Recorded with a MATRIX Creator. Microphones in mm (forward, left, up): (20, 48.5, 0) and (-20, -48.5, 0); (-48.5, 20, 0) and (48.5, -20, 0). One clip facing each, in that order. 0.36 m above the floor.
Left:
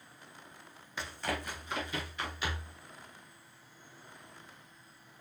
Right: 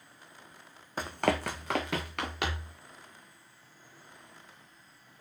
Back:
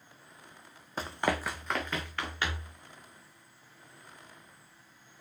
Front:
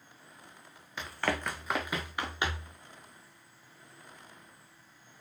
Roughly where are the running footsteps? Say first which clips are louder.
Right 8 dB, back 2 dB; behind right.